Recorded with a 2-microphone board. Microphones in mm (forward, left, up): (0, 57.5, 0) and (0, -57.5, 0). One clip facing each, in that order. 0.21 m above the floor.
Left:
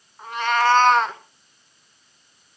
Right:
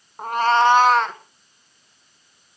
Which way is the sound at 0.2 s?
50° right (ahead or behind).